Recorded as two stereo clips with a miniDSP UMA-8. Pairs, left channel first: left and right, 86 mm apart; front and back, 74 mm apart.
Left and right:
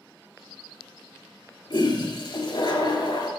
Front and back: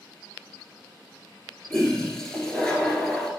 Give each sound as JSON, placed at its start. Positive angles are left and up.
{"t": 1.7, "sound": "a toilet flushing", "azimuth_deg": 80, "distance_m": 1.4}